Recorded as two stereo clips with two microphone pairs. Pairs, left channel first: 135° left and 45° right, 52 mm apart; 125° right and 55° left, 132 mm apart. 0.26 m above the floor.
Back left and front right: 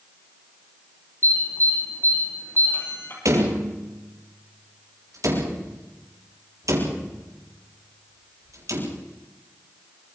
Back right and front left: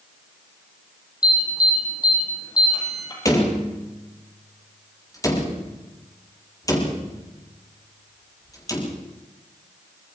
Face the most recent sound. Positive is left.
turn(degrees=-60)